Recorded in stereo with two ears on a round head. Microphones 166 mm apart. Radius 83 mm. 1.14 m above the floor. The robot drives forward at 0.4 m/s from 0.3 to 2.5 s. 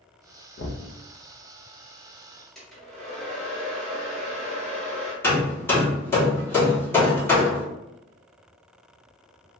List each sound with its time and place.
0.6 s knocking: 60° left (ahead or behind), 0.5 m; by 0.9 s 65° left (ahead or behind), 0.5 m
2.5 s a hair dryer: 5° left (ahead or behind), 1.0 m
5.2 s hammering: 15° left (ahead or behind), 1.2 m